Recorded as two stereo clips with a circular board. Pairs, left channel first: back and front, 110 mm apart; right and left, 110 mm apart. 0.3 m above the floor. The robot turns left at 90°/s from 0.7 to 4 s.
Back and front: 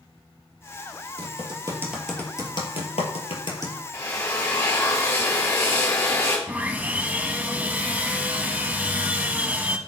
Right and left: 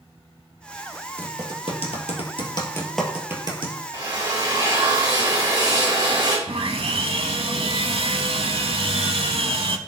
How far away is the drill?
About 2.5 m.